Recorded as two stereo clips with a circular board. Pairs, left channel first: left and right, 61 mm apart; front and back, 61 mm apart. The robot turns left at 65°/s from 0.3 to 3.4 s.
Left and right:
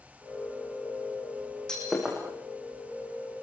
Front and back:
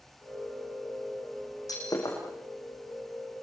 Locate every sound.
1.7 s breaking glass: 10° left, 7 m; by 2.2 s 20° right, 7 m